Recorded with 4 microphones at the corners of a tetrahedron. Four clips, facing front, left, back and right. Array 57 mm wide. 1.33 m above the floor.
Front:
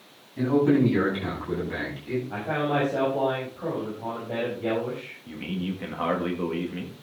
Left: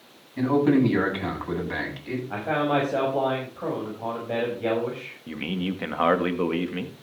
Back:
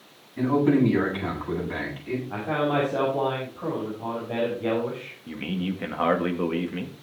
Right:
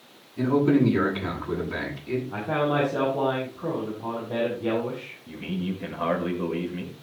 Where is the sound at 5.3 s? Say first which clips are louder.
Left 2 dB, back 2 dB; 110° left, 1.9 m.